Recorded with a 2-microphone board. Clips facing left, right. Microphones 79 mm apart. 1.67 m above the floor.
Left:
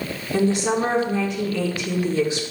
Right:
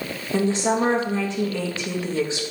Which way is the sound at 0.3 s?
30° right (ahead or behind).